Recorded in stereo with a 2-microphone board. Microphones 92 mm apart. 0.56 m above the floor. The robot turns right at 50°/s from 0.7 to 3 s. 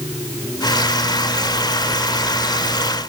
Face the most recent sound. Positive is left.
No sound to turn to.